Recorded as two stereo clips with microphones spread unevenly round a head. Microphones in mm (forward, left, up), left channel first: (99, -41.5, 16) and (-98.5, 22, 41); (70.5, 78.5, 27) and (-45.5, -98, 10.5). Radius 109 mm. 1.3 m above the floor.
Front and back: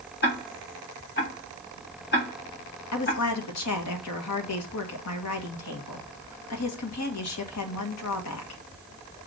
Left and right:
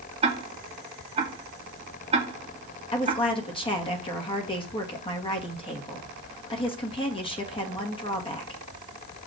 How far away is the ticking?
About 2 m.